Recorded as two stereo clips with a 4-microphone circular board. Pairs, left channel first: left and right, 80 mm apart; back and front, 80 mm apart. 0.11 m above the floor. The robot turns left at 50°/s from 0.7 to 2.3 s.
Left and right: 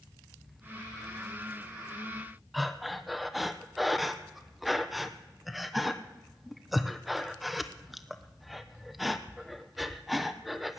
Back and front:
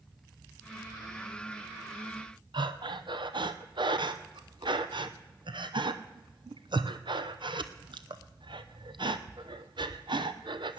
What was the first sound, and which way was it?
Breathing, straight ahead.